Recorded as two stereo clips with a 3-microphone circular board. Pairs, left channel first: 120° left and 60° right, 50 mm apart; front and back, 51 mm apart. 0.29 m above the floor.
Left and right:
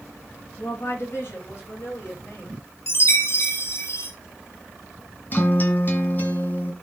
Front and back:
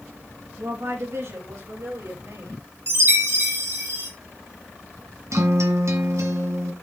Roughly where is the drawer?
No drawer in this recording.